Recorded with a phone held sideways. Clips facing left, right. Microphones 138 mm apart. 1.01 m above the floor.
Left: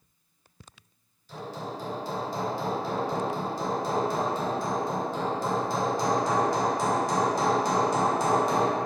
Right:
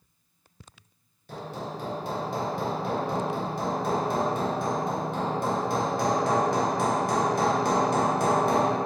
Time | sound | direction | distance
1.3 | hammering | 55° right (ahead or behind) | 0.9 m